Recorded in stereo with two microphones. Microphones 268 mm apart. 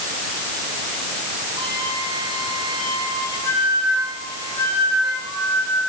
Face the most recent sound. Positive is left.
turn(degrees=75)  # may be behind; listen again after turning